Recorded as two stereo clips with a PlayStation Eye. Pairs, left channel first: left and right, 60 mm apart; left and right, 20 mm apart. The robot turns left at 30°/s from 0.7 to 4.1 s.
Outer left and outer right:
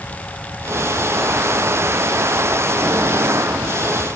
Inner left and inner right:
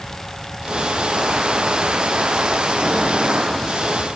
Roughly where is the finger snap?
No finger snap in this recording.